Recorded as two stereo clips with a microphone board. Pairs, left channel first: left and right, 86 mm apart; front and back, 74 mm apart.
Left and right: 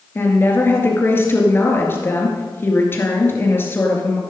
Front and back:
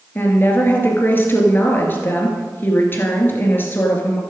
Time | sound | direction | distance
0.1 | a woman speaking | 40° left | 2 m